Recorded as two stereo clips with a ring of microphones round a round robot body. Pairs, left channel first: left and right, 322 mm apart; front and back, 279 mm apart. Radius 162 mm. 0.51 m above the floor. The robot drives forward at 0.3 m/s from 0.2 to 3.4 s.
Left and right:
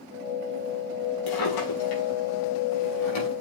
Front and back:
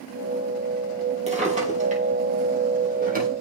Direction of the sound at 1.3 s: 115° left.